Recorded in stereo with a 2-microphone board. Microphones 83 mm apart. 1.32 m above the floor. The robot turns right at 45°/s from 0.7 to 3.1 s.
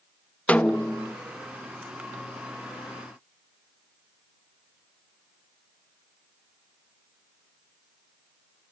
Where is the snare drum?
15° left (ahead or behind), 0.6 m; by 1.1 s 20° left (ahead or behind), 0.6 m.